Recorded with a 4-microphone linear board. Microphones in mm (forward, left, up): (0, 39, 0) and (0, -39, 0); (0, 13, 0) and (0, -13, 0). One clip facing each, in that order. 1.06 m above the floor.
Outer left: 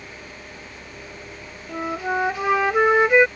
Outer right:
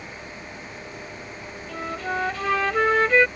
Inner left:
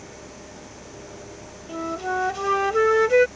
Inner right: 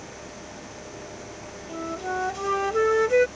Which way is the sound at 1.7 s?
15° left (ahead or behind).